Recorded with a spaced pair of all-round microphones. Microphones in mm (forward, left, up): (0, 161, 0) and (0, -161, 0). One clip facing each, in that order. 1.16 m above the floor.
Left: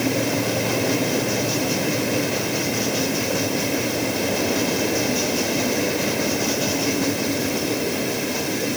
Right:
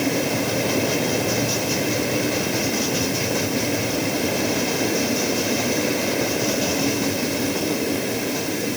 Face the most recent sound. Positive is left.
No sound to turn to.